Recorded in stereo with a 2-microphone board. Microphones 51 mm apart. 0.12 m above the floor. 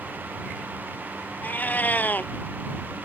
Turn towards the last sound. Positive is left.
turn(degrees=35)  # may be behind; listen again after turning